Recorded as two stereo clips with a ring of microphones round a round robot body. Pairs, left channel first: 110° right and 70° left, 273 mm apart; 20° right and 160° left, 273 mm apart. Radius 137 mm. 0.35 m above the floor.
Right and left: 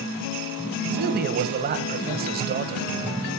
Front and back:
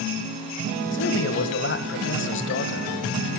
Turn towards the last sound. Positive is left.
turn(degrees=15)